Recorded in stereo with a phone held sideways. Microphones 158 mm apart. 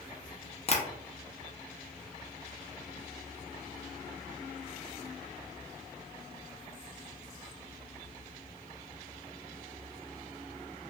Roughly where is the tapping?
Left.